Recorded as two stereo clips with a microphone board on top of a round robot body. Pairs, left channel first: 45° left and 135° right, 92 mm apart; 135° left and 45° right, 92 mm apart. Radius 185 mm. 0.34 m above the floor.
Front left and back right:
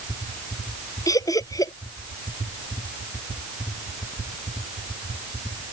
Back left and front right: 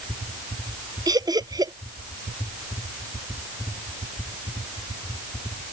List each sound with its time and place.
1.1 s laughter: 5° right